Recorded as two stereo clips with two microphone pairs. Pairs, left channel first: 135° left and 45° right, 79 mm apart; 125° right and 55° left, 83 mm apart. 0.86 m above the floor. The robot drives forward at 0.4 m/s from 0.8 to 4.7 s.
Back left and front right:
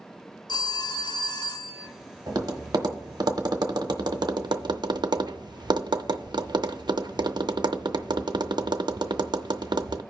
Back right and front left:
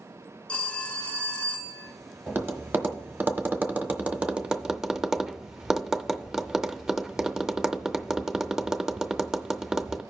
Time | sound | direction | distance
0.5 | a phone ringing | 160° left | 0.8 m
2.3 | tapping | 10° right | 1.4 m